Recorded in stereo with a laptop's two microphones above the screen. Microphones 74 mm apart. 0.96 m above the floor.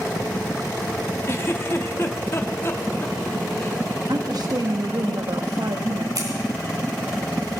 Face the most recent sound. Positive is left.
turn(degrees=-50)  # may be behind; listen again after turning